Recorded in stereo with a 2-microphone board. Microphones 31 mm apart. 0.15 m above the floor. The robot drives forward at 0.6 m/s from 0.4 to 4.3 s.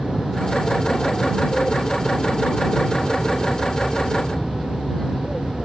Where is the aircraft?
15° left (ahead or behind).